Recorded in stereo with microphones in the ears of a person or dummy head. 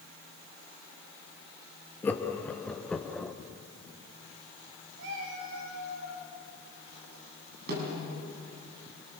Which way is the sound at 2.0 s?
10° left (ahead or behind).